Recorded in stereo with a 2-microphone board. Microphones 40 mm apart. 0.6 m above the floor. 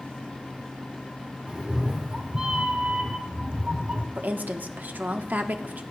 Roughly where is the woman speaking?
Right.